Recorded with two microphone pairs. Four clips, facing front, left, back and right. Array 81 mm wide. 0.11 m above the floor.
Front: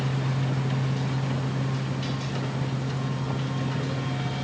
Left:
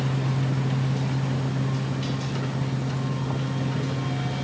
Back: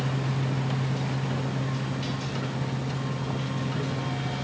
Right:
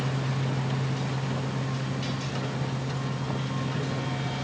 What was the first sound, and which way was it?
Only background noise.